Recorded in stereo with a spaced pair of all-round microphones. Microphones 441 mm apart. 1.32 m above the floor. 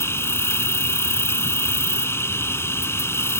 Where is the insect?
5° left (ahead or behind).